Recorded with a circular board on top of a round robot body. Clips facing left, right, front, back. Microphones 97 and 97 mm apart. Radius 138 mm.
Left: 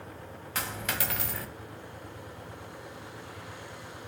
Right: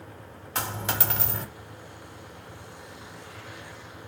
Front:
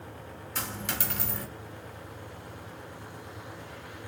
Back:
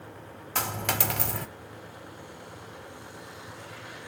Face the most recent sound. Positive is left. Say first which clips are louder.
# right 4 dB, back 6 dB
turn(degrees=-150)